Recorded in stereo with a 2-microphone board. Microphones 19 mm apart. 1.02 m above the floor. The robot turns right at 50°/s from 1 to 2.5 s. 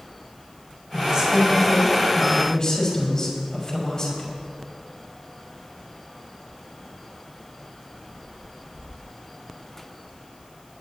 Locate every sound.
0.9 s a man speaking: 40° right, 5.5 m; by 4.3 s 35° left, 5.5 m